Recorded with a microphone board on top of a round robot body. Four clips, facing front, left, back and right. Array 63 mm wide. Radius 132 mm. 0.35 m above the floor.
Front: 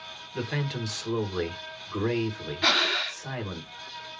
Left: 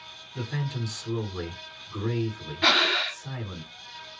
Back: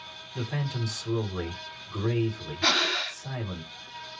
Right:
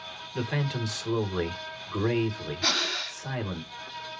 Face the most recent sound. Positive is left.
turn(degrees=80)